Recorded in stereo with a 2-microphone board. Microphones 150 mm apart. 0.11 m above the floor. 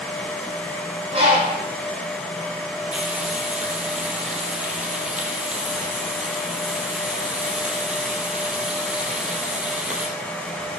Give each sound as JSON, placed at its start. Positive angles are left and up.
{"t": 1.1, "sound": "a bird", "side_deg": -40, "distance_m": 4.5}
{"t": 2.9, "sound": "frying", "side_deg": -5, "distance_m": 3.5}